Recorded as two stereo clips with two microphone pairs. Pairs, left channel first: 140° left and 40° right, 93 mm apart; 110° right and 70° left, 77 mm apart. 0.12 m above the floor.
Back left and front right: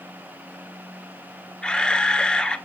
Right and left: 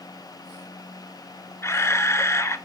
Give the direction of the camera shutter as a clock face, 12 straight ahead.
5 o'clock.